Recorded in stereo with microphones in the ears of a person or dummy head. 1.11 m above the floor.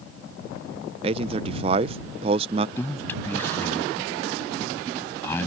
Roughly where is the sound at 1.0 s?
Right.